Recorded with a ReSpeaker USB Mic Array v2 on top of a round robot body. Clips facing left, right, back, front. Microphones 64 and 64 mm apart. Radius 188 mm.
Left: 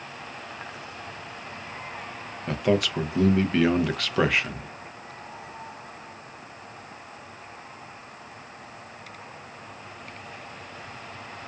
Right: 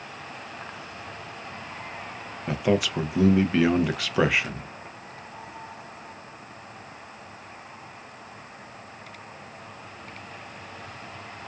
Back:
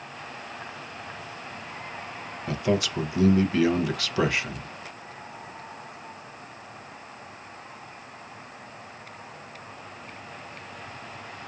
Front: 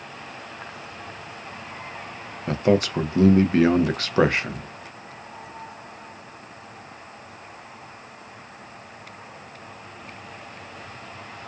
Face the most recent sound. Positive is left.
turn(degrees=-10)